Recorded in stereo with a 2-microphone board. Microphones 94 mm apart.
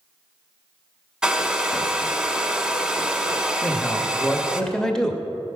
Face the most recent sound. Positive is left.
turn(degrees=5)  # may be behind; listen again after turning